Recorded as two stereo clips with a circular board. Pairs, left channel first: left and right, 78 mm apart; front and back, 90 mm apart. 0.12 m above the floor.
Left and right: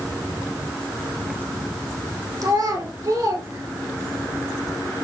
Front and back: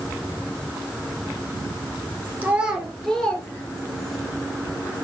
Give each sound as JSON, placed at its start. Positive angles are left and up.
{"t": 2.4, "sound": "a child speaking", "azimuth_deg": -115, "distance_m": 2.5}